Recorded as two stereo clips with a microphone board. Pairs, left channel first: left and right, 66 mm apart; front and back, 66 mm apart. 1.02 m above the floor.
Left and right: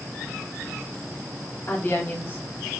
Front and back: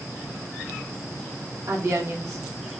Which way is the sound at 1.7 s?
145° left.